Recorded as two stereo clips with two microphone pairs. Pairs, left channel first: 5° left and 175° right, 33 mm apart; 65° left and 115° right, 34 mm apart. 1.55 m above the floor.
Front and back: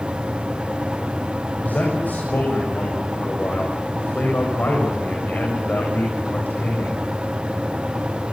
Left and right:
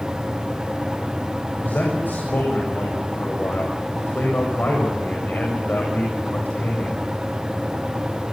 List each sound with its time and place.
1.6 s a man speaking: 35° left, 7.5 m